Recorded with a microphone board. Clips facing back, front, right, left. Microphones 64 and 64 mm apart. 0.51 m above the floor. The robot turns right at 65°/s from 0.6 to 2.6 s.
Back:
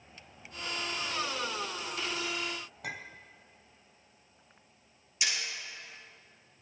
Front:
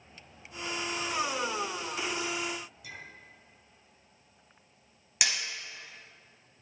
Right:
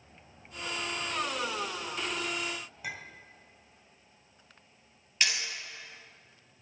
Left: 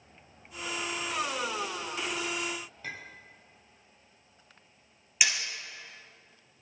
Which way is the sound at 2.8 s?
170° right.